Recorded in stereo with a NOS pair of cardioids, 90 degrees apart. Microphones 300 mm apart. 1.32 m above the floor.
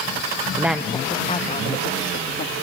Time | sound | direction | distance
0.6 | a woman speaking | 10° right | 1.1 m